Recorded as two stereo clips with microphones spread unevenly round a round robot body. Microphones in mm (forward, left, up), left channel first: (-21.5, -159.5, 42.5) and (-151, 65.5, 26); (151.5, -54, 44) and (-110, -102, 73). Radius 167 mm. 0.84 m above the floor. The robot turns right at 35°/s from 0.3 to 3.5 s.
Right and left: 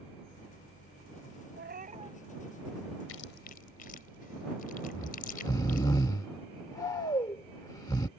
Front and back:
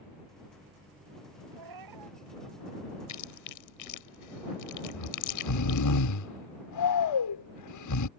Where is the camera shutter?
I don't hear a camera shutter.